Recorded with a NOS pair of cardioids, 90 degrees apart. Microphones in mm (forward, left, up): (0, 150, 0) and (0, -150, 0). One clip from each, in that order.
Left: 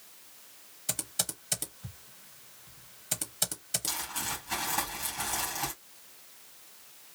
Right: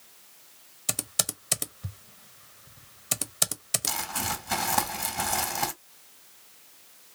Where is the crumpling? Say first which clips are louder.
Right 4 dB; 65° right, 2.5 m.